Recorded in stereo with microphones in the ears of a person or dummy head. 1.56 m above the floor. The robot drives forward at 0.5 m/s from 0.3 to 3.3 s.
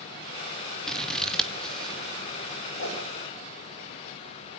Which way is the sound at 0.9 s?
Centre (ahead or behind).